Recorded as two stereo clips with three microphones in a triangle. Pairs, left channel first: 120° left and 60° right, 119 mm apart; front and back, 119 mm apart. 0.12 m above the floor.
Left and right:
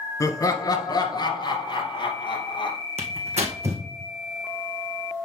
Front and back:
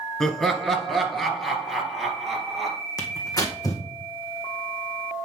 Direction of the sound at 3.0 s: 55° right.